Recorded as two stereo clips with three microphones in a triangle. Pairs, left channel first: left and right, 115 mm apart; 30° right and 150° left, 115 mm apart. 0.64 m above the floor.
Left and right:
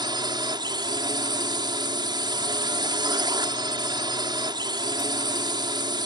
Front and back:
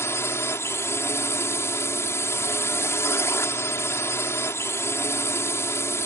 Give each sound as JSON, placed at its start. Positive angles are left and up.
{"t": 0.0, "sound": "a drone", "azimuth_deg": -85}